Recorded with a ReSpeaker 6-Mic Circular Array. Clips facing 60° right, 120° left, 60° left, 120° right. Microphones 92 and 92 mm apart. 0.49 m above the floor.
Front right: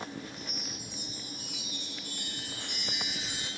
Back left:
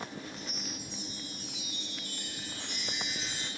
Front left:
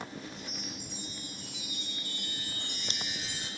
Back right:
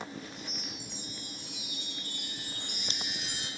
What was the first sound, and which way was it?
A chime, 140° right.